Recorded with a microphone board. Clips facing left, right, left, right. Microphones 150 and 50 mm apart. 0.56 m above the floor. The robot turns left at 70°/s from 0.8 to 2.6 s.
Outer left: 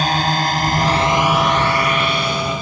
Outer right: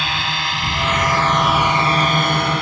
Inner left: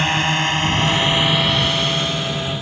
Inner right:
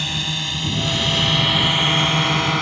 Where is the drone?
40° left (ahead or behind); by 2.6 s 75° right (ahead or behind).